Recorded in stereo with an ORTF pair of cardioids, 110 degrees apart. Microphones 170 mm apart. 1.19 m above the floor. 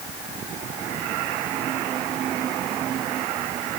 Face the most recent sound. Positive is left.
No sound to turn to.